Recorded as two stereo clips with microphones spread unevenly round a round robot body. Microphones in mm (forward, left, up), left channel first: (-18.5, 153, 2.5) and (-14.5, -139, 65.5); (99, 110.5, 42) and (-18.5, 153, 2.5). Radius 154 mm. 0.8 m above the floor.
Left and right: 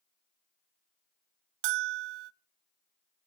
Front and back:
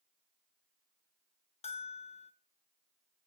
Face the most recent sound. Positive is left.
turn(degrees=-90)